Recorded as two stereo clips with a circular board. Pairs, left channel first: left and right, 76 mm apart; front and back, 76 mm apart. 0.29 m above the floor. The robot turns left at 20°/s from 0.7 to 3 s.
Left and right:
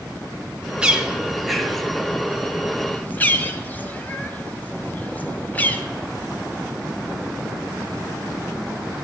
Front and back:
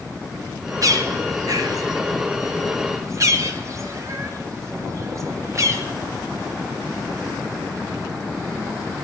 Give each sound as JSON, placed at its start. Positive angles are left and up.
{"t": 0.8, "sound": "a bird", "azimuth_deg": -165, "distance_m": 1.2}